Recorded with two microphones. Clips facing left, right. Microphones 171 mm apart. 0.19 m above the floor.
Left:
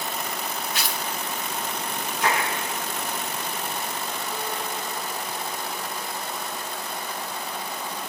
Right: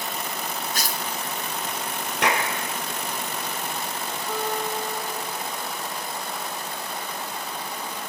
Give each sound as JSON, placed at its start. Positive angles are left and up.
{"t": 0.7, "sound": "tearing paper", "side_deg": -40, "distance_m": 0.7}
{"t": 2.2, "sound": "a clap", "side_deg": -75, "distance_m": 3.0}
{"t": 4.3, "sound": "a guitar", "side_deg": -80, "distance_m": 8.0}